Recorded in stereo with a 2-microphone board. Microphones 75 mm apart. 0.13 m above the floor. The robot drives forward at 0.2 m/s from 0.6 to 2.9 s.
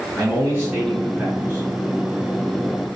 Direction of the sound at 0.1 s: 20° right (ahead or behind).